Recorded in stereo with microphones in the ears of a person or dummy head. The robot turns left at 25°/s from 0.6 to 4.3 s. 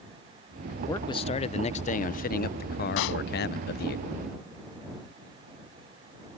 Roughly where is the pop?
Left.